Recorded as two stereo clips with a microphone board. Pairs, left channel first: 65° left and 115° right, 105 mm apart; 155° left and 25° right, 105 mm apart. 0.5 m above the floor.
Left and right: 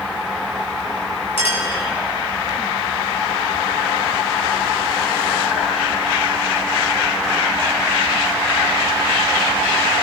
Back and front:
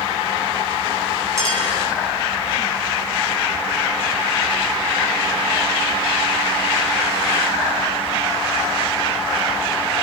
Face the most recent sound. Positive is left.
turn(degrees=40)